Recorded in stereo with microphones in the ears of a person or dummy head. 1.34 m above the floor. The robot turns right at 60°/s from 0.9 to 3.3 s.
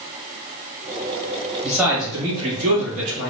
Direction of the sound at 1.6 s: Straight behind.